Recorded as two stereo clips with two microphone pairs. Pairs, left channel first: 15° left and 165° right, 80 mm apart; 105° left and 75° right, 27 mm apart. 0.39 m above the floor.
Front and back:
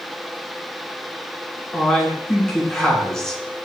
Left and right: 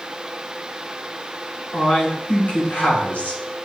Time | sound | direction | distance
1.7 | a man speaking | 95° left | 3.5 m